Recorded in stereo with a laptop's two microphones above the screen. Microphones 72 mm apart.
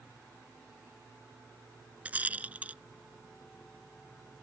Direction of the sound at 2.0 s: 20° right (ahead or behind).